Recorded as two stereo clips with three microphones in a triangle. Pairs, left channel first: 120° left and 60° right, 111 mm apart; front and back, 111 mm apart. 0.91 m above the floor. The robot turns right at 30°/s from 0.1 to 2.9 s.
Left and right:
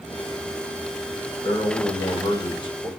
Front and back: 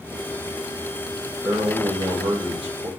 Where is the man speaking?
115° left, 1.3 m; by 2.9 s 160° left, 1.3 m.